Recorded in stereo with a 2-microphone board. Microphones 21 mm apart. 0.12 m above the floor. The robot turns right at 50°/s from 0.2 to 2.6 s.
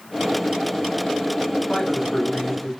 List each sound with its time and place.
1.7 s a man speaking: 110° left, 1.5 m; by 2.7 s 155° left, 1.5 m